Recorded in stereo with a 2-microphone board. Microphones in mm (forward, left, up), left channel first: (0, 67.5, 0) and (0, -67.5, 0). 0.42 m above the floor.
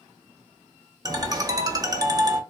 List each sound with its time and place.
1.1 s a ringtone: 25° right (ahead or behind), 0.7 m